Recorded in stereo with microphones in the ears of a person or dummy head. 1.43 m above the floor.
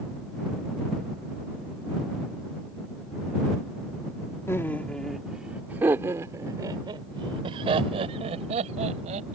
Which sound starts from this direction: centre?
Laughter, at 4.5 s.